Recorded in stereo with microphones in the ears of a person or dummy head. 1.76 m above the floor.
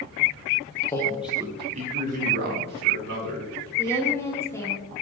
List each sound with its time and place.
0.9 s a man speaking: 20° left (ahead or behind), 1.1 m; by 3.7 s 65° right (ahead or behind), 3.5 m
3.8 s a woman speaking: 20° left (ahead or behind), 2 m